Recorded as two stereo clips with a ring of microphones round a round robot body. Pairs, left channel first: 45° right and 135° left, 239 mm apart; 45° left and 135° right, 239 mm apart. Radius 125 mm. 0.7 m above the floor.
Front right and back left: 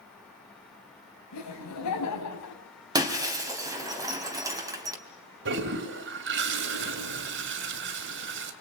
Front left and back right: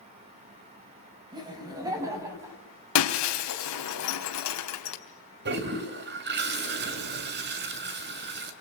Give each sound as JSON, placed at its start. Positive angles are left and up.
{"t": 1.3, "sound": "laughter", "azimuth_deg": -60, "distance_m": 6.0}
{"t": 3.0, "sound": "breaking glass", "azimuth_deg": 60, "distance_m": 3.0}
{"t": 5.5, "sound": "a toilet flushing", "azimuth_deg": 180, "distance_m": 2.5}